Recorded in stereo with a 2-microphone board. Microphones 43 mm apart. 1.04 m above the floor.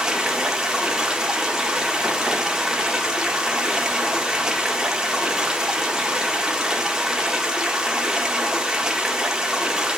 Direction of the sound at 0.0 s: 15° right (ahead or behind).